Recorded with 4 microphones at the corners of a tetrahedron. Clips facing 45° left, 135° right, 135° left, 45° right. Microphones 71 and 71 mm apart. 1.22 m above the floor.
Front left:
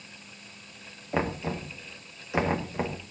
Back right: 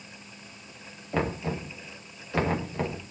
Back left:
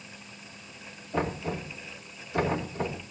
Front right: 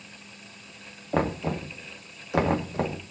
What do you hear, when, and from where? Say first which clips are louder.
1.1 s knocking: even, front right 4 dB; 30° right, 2 m